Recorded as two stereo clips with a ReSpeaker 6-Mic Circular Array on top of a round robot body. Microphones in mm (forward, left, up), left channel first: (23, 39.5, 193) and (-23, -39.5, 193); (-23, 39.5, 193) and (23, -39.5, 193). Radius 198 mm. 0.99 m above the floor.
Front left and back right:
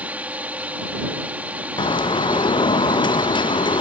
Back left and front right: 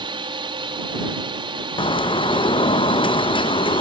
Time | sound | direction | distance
0.0 | a drone | 45° right | ?
1.8 | a bird | 95° left | ?